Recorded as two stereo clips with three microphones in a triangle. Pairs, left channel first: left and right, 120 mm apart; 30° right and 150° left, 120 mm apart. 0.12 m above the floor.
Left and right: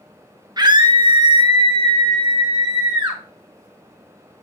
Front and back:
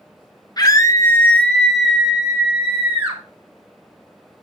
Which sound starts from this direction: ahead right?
A scream, at 0.6 s.